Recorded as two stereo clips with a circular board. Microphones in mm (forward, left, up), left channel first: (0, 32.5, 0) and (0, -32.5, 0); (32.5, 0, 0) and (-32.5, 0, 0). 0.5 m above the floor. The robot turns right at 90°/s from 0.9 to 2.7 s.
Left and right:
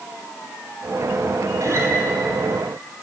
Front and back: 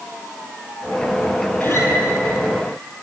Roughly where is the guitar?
Ahead right.